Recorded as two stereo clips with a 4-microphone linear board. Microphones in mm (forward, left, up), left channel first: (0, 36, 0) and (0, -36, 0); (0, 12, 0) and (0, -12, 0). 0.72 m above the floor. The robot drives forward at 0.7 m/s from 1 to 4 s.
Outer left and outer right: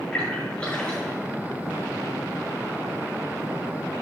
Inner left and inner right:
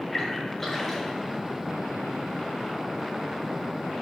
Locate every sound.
0.1 s a splash: 15° left (ahead or behind), 3.5 m